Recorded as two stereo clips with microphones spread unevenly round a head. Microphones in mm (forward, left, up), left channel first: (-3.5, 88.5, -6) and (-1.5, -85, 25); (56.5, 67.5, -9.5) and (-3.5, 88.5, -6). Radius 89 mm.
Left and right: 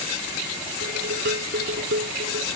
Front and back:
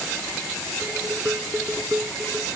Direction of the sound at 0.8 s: 125° right.